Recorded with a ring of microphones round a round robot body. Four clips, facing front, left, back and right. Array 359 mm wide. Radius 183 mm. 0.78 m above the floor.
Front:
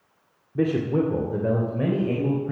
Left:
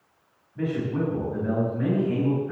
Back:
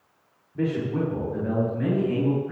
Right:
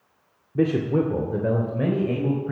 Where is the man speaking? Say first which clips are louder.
Right 6 dB, front 3 dB; 65° right, 1.7 m; by 2.5 s 55° right, 3.5 m.